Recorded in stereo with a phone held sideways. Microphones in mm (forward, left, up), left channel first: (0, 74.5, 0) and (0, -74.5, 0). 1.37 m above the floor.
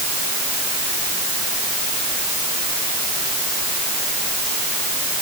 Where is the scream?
I don't hear a scream.